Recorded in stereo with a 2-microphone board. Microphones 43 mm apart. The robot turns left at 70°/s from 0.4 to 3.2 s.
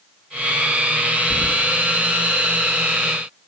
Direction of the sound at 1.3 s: 60° right (ahead or behind).